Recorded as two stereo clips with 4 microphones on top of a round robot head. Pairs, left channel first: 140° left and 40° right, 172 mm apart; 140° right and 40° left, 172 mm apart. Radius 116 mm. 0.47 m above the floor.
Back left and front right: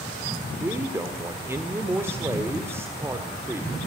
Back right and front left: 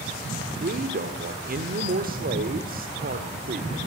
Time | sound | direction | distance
0.6 | a man speaking | 30° left | 1.6 m